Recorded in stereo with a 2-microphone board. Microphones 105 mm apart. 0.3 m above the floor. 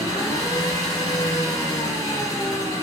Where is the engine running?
35° left (ahead or behind), 2.5 m.